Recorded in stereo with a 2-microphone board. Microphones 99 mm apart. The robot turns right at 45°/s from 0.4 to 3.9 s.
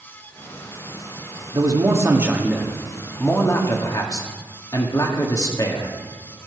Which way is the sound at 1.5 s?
55° right.